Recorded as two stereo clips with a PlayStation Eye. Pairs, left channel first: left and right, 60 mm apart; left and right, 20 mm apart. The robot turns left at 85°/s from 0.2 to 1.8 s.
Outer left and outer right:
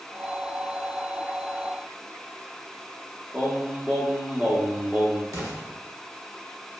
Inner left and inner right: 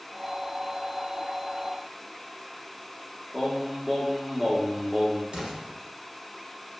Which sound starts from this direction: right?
An explosion, at 5.3 s.